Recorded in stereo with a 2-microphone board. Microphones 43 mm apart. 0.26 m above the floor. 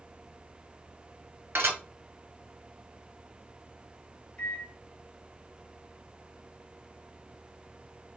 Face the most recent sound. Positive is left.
turn(degrees=30)  # may be behind; listen again after turning